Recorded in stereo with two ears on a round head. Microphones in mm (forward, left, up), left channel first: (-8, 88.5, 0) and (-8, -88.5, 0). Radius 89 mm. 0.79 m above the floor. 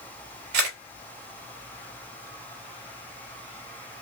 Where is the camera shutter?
55° right (ahead or behind), 3 m.